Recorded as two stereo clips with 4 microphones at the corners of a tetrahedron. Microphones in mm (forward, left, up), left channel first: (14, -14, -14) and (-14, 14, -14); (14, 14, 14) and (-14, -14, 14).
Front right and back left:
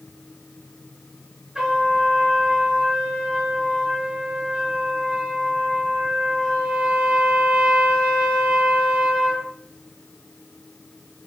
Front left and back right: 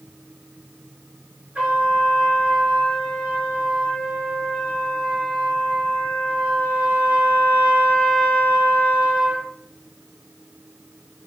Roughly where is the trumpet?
Behind right.